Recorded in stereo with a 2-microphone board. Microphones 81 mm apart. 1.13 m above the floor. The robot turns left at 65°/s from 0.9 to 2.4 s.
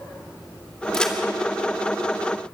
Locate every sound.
0.9 s a crack: 5° left (ahead or behind), 3 m; by 1.1 s 20° left (ahead or behind), 3 m